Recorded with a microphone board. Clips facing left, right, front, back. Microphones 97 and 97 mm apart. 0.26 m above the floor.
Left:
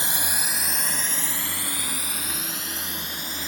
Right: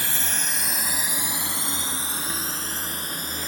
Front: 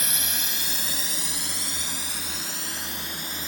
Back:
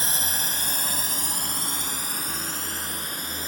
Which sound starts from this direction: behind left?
A drone, at 0.0 s.